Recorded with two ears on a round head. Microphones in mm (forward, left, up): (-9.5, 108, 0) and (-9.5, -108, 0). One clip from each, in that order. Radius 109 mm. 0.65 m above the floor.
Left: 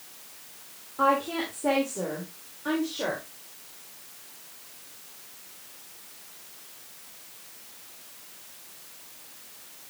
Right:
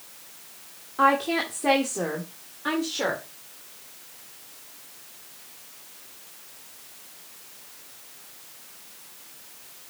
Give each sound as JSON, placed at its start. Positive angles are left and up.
{"t": 1.0, "sound": "a woman speaking", "side_deg": -65, "distance_m": 1.6}